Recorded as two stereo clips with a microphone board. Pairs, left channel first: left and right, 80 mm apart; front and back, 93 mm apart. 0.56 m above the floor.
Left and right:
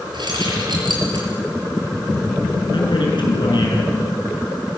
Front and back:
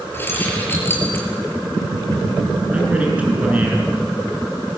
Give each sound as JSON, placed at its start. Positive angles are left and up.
{"t": 0.1, "sound": "keys jangling", "azimuth_deg": -65, "distance_m": 7.0}
{"t": 2.7, "sound": "a man speaking", "azimuth_deg": 105, "distance_m": 8.0}